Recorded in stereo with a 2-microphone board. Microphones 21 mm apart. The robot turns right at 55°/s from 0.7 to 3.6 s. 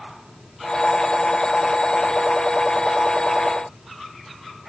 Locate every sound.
Only background noise.